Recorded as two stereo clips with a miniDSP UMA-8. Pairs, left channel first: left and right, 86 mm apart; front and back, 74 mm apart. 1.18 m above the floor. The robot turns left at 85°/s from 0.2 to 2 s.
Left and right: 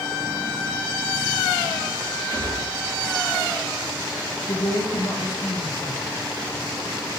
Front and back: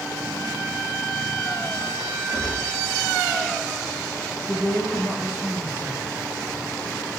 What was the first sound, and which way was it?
A gunshot, 135° right.